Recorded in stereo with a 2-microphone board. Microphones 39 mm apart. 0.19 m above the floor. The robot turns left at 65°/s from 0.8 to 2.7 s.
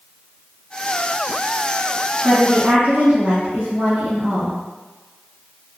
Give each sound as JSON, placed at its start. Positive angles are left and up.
{"t": 2.2, "sound": "a woman speaking", "side_deg": -35, "distance_m": 1.5}